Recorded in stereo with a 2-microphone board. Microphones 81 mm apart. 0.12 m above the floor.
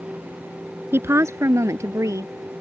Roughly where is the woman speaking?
Right.